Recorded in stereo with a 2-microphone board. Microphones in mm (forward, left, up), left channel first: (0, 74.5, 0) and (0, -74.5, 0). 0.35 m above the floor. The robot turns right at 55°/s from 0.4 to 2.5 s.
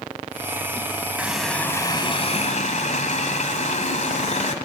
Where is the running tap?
10° right, 1.5 m; by 4.5 s 60° left, 1.5 m.